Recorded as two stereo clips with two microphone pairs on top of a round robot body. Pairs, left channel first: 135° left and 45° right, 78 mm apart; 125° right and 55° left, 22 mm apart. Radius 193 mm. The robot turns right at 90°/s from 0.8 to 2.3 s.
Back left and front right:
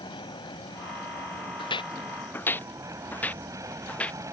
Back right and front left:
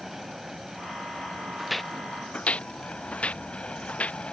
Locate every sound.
0.0 s an aircraft: 135° left; by 4.3 s 90° right
1.6 s footsteps: 130° left; by 4.2 s 150° right